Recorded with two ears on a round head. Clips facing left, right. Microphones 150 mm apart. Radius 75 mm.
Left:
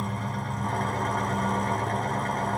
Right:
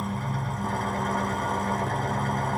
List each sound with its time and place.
0.0 s an engine running: centre (ahead or behind), 1.0 m